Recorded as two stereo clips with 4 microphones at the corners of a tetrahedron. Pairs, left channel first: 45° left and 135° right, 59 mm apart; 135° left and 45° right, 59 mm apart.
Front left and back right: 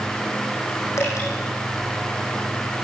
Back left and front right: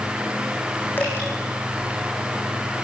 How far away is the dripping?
About 8.5 m.